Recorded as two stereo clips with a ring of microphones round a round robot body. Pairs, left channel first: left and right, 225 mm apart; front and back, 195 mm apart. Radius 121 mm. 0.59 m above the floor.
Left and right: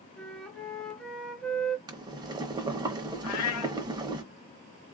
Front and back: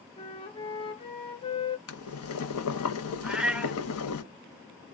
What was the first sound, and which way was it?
A flute, 10° left.